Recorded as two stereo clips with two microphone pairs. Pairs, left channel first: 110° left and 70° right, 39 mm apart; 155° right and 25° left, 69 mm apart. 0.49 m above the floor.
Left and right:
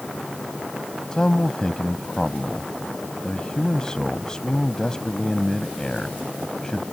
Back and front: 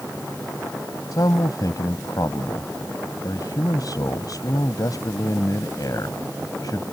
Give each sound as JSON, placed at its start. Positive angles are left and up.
{"t": 1.1, "sound": "a man speaking", "azimuth_deg": -175}